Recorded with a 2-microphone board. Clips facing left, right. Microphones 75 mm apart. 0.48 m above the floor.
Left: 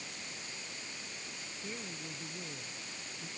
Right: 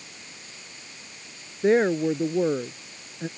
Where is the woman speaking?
80° right.